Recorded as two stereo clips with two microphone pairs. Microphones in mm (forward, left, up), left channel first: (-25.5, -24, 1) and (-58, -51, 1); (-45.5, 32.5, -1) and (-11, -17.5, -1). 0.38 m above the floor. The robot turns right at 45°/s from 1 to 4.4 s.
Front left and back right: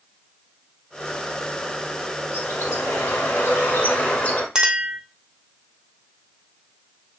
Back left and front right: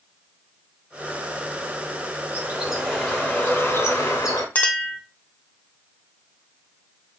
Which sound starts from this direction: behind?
A clink, at 4.5 s.